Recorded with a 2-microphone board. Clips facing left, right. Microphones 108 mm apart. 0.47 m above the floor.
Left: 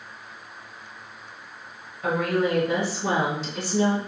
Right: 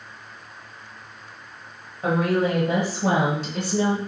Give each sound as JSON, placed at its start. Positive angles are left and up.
{"t": 2.0, "sound": "a woman speaking", "side_deg": -35, "distance_m": 2.0}